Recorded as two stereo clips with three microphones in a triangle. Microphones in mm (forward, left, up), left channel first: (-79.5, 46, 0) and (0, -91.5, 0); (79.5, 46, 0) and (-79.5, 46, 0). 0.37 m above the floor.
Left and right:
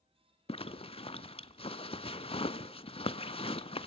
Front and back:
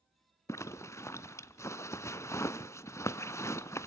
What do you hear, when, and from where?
0.5 s a zipper: 75° left, 0.5 m